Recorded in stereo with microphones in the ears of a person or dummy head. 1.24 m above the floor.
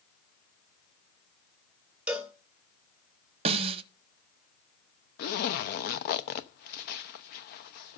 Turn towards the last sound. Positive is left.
turn(degrees=45)  # may be behind; listen again after turning